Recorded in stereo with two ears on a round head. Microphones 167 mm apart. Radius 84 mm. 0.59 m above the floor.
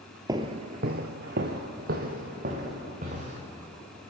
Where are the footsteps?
20° right (ahead or behind), 0.9 m; by 3.4 s 40° right (ahead or behind), 3.5 m.